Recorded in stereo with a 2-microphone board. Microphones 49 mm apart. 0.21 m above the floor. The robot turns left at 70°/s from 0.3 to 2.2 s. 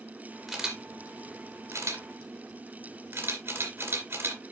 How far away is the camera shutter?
About 2.5 m.